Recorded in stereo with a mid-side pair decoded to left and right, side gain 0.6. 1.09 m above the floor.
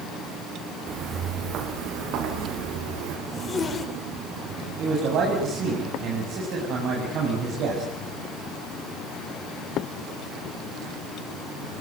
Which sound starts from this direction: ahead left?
A zipper, at 3.3 s.